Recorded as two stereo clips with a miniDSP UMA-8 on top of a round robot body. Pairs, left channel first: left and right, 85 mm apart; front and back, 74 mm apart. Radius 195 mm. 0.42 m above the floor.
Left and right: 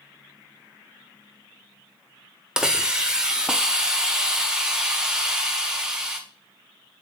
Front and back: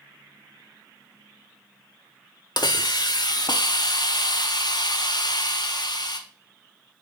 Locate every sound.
2.6 s a hiss: 10° right, 1.7 m